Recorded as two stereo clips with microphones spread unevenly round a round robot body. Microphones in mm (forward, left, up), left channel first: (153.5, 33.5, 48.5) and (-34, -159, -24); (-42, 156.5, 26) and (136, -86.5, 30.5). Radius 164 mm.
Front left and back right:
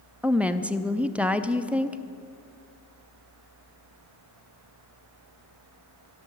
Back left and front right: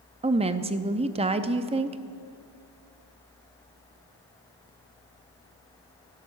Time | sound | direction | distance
0.2 | a woman speaking | 100° right | 0.6 m